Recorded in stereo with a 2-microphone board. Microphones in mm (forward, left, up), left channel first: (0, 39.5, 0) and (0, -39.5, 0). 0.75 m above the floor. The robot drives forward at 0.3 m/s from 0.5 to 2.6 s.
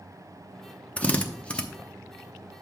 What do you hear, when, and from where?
1.0 s a drill: 20° left (ahead or behind), 0.7 m; by 1.6 s 15° left (ahead or behind), 0.9 m